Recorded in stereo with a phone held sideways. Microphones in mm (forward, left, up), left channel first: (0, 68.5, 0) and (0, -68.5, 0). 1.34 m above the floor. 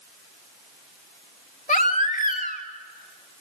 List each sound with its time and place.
1.7 s a baby crying: 65° left (ahead or behind), 1.9 m